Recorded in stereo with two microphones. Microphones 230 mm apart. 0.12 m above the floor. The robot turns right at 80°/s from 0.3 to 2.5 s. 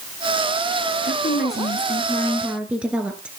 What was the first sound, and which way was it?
A woman speaking, 70° left.